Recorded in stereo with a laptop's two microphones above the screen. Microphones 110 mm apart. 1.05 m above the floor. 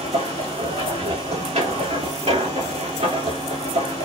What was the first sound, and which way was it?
A machine running, 70° right (ahead or behind).